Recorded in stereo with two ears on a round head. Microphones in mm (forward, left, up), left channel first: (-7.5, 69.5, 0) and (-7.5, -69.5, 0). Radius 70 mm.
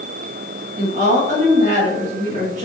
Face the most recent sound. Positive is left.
turn(degrees=-50)  # may be behind; listen again after turning